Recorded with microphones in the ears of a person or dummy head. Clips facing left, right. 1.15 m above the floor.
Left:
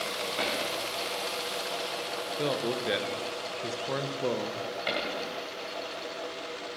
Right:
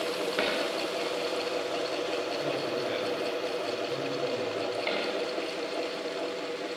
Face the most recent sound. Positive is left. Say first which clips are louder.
# right 3 dB
turn(degrees=10)  # may be behind; listen again after turning